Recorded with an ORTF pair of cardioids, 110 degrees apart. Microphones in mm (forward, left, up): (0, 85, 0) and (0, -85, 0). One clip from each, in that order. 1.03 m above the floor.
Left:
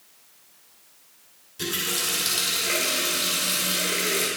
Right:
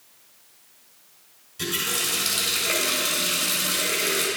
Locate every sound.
1.6 s a running tap: 5° left, 2 m